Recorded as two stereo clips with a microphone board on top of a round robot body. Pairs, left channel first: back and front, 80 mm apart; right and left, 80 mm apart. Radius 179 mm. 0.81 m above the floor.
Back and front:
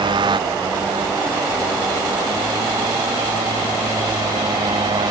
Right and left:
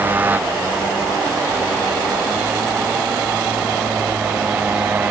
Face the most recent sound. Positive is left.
turn(degrees=15)